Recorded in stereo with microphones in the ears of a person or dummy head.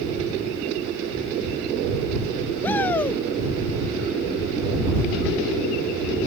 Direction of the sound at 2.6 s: 10° left (ahead or behind).